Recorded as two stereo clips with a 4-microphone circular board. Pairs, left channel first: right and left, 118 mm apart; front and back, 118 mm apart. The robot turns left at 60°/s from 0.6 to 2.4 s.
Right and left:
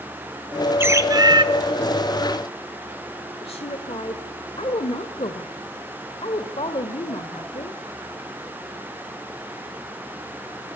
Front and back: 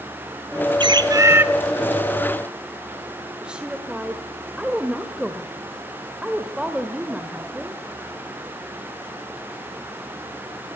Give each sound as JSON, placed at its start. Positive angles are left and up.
{"t": 0.8, "sound": "a bird", "azimuth_deg": 155, "distance_m": 0.9}
{"t": 3.4, "sound": "a woman speaking", "azimuth_deg": -100, "distance_m": 1.3}